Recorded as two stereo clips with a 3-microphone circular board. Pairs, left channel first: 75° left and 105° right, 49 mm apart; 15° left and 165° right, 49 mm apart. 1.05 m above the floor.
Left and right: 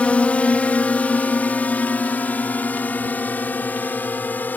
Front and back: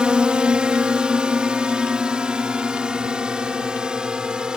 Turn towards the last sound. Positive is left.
turn(degrees=125)